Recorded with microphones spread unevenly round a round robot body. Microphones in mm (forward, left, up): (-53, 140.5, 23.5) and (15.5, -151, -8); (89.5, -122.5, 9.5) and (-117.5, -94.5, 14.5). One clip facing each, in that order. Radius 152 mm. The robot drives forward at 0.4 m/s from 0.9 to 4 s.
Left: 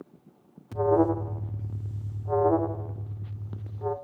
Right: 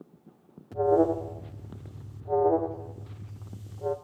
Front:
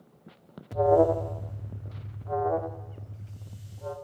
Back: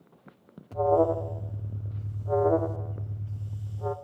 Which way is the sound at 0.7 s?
45° left.